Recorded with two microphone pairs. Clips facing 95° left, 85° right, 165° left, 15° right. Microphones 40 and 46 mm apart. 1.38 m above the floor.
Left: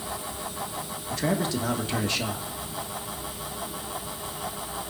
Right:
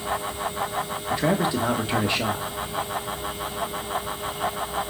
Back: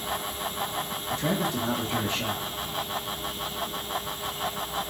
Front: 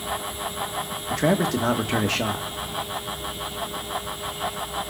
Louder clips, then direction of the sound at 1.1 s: Right 4 dB, front 6 dB; 15° right.